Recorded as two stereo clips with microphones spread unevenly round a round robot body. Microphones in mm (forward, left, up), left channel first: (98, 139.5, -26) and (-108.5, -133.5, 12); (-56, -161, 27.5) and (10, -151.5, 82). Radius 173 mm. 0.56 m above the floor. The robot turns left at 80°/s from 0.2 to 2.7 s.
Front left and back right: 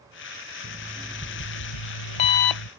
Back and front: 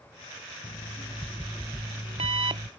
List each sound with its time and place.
0.6 s an alarm clock: 170° left; by 2.7 s 5° left